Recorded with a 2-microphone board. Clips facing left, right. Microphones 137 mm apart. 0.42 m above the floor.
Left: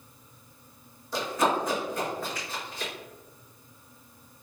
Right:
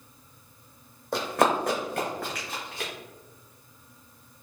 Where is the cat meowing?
No cat meowing in this recording.